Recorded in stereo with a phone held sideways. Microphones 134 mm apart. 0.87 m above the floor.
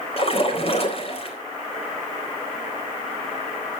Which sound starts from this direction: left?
A splash, at 0.2 s.